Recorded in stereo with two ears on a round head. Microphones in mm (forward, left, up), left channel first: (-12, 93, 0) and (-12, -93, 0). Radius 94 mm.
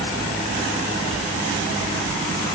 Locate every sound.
Only background noise.